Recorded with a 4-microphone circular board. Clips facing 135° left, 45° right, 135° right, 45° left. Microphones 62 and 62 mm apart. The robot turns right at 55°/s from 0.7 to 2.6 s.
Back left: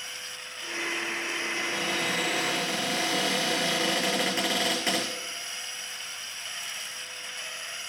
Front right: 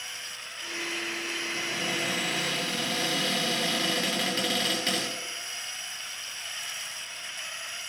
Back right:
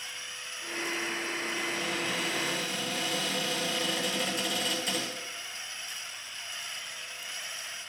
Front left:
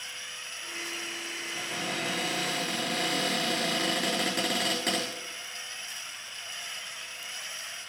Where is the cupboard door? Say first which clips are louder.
Back left 1 dB, front left 2 dB; 5° left, 6 m; by 5.1 s 65° left, 6 m.